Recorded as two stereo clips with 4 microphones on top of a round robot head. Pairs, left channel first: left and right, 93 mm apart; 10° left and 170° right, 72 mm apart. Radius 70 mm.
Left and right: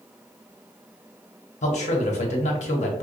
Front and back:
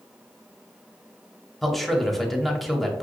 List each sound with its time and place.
1.6 s a man speaking: 100° left, 0.9 m